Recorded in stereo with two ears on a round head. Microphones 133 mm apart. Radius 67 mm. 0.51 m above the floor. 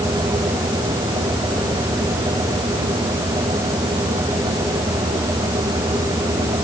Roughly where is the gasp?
I don't hear a gasp.